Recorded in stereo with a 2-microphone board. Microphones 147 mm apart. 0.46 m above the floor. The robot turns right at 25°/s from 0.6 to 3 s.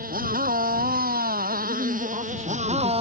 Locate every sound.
0.0 s a motorcycle: 105° right; by 3.0 s 45° right
1.6 s a man speaking: 60° right; by 2.9 s 30° right